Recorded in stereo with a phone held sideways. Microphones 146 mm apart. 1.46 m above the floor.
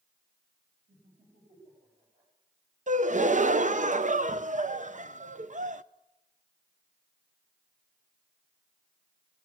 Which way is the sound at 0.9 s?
60° right (ahead or behind).